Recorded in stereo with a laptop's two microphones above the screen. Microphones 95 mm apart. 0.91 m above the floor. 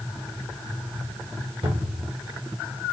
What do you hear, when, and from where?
1.6 s a cupboard door: 80° right, 3 m